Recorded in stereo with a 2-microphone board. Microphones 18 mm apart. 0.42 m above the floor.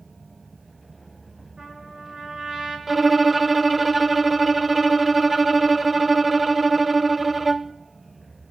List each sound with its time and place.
1.6 s a trumpet: 50° right (ahead or behind), 5.5 m
2.9 s a violin: 5° right (ahead or behind), 0.5 m